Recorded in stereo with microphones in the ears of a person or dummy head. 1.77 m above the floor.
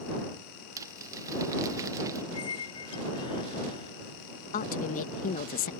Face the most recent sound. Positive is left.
turn(degrees=45)  # may be behind; listen again after turning